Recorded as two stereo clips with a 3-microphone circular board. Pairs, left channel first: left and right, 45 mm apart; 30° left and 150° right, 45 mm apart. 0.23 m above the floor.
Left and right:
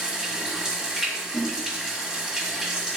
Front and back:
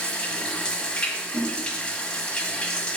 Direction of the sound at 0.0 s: 25° right.